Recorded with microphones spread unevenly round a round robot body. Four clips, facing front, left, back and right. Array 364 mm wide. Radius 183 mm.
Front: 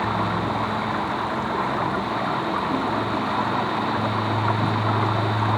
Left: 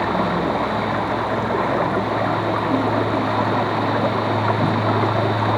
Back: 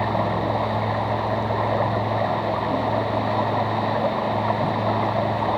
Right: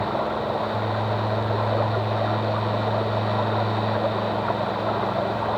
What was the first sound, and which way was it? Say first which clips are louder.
Running water: left 5 dB, back 1 dB; 100° left.